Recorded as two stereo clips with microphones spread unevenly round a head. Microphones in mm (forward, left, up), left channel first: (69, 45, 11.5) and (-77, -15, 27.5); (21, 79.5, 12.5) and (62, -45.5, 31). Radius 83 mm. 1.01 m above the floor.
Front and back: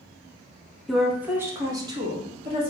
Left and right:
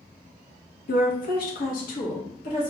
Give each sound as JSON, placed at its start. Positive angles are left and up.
{"t": 0.9, "sound": "a woman speaking", "azimuth_deg": 110, "distance_m": 0.7}